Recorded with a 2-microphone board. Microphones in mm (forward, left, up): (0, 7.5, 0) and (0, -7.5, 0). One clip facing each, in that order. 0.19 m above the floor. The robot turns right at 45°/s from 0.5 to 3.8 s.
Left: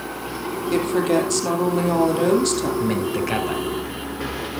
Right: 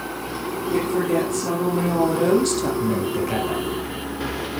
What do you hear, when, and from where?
0.7 s a woman speaking: 85° left, 5 m; by 2.7 s 175° left, 5 m
2.8 s a man speaking: 120° left, 2.5 m; by 3.6 s 155° left, 2.5 m